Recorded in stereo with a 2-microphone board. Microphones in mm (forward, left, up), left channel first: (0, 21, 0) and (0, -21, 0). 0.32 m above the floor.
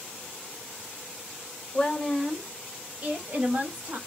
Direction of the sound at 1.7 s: 25° left (ahead or behind).